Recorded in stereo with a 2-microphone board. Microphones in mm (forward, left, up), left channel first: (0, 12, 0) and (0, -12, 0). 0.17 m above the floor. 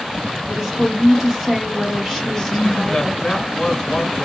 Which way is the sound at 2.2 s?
20° left (ahead or behind).